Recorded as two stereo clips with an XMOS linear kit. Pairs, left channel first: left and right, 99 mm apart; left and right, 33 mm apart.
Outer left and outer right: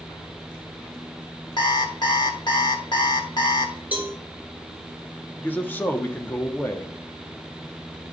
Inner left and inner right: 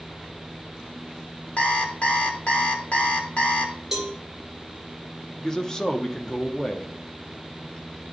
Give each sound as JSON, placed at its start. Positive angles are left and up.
{"t": 1.6, "sound": "an alarm clock", "side_deg": 45, "distance_m": 1.0}
{"t": 3.9, "sound": "a cowbell", "side_deg": -15, "distance_m": 2.0}
{"t": 5.4, "sound": "a man speaking", "side_deg": 20, "distance_m": 0.8}